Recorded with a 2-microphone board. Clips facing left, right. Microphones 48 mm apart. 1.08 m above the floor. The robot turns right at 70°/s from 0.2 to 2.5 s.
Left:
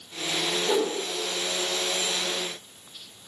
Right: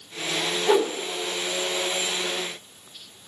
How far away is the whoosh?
About 0.9 m.